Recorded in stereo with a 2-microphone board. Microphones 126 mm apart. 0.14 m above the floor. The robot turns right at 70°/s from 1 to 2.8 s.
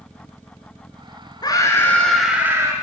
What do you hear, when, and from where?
1.4 s a scream: 125° left, 2 m; by 2.7 s 140° right, 2 m